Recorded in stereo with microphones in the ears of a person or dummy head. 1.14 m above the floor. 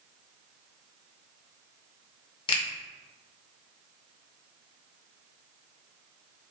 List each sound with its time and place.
2.5 s a finger snap: 20° left (ahead or behind), 0.6 m